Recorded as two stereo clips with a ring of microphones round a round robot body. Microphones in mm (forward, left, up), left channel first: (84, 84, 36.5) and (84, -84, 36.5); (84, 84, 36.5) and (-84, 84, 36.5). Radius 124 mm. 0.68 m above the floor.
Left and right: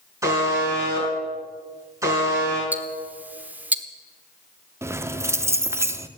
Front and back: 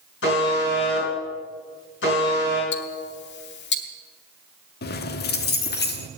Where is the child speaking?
I don't hear a child speaking.